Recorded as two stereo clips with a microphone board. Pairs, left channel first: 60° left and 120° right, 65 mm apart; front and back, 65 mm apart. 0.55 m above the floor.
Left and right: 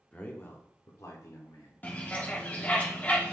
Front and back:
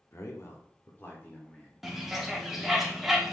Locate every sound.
0.1 s a man speaking: 5° right, 0.8 m; by 2.8 s 75° left, 2 m
1.8 s a bird: 100° left, 0.8 m